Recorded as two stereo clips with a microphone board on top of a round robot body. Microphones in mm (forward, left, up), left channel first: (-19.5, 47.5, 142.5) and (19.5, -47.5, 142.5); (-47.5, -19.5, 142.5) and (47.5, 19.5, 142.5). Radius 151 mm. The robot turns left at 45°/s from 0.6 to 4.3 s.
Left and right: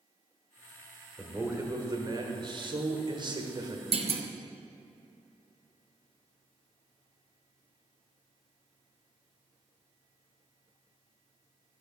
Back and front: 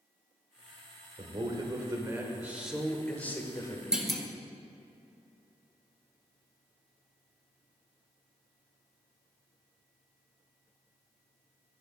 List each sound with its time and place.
1.2 s a man speaking: 5° left, 1.3 m; by 3.8 s 110° right, 1.3 m
3.9 s a clunk: 60° right, 0.8 m; by 4.2 s 75° right, 0.8 m